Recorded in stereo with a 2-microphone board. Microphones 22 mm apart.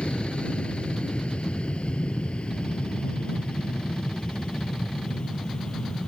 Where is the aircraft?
65° left (ahead or behind); by 6.1 s 45° left (ahead or behind).